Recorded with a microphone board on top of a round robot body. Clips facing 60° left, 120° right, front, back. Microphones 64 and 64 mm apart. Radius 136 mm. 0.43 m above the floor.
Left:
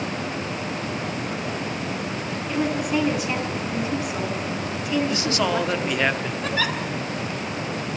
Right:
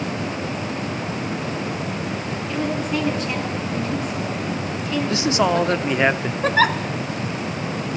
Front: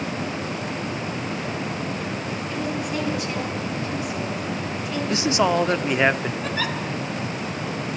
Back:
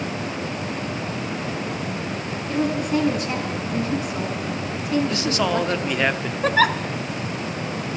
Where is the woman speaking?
140° left, 6.5 m.